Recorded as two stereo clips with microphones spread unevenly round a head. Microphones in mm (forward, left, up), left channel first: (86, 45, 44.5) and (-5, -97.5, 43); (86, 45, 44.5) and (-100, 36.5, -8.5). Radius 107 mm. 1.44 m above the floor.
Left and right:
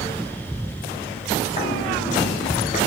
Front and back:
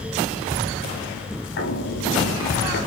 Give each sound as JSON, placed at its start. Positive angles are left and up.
{"t": 1.6, "sound": "footsteps", "azimuth_deg": 5, "distance_m": 7.0}